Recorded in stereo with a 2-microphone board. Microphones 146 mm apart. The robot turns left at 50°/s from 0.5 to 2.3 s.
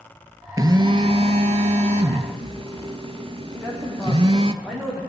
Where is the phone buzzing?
35° right, 0.5 m; by 4.5 s 120° right, 0.5 m.